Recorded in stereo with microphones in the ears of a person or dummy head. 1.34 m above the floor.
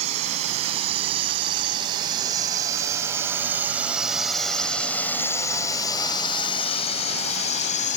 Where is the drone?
40° right (ahead or behind); by 8.0 s 45° left (ahead or behind).